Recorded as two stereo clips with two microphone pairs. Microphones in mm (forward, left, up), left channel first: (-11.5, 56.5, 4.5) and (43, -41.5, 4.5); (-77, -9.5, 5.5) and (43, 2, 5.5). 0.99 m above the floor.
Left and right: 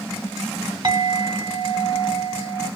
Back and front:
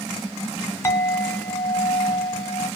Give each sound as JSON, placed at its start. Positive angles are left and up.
{"t": 0.8, "sound": "a clink", "azimuth_deg": -105, "distance_m": 1.5}